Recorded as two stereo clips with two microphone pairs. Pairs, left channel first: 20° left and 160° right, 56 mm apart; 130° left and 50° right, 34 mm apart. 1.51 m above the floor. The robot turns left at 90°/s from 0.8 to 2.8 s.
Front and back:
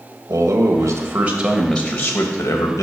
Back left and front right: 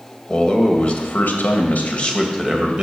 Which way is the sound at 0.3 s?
Straight behind.